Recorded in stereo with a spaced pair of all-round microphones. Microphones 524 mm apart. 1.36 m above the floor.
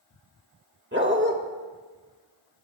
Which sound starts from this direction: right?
A dog barking, at 0.9 s.